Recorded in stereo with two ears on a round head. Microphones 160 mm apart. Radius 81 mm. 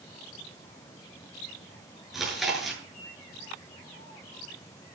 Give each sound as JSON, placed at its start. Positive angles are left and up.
{"t": 2.1, "sound": "chewing", "side_deg": 0, "distance_m": 8.5}